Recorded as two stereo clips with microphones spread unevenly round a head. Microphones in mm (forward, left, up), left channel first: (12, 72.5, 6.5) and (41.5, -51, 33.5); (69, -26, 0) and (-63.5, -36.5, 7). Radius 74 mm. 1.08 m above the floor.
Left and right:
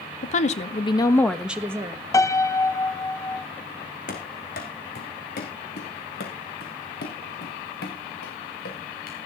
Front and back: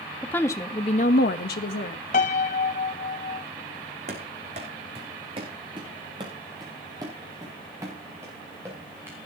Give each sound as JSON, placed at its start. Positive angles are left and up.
{"t": 0.2, "sound": "a woman speaking", "azimuth_deg": 85, "distance_m": 1.8}
{"t": 2.1, "sound": "a piano", "azimuth_deg": 45, "distance_m": 1.0}
{"t": 4.1, "sound": "running footsteps", "azimuth_deg": 140, "distance_m": 3.0}